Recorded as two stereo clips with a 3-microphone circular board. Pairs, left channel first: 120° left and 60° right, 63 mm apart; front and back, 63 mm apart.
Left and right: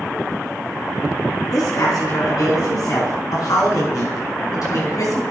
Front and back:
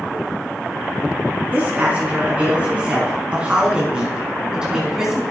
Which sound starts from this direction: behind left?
A woman speaking, at 1.5 s.